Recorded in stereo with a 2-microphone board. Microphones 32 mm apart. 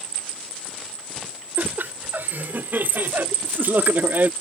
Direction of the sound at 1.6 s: 70° right (ahead or behind).